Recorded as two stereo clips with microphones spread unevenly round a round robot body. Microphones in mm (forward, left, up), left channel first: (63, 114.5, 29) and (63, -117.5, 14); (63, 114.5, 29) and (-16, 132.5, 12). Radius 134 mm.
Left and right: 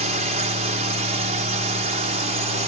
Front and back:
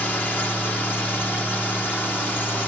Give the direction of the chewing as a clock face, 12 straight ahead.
No chewing in this recording.